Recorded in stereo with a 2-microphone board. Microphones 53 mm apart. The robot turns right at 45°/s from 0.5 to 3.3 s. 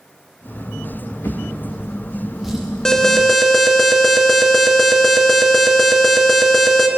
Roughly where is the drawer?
Left.